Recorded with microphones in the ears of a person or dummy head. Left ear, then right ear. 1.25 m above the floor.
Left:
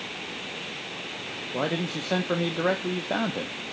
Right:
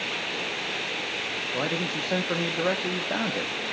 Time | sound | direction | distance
1.5 | a man speaking | 5° left (ahead or behind) | 0.9 m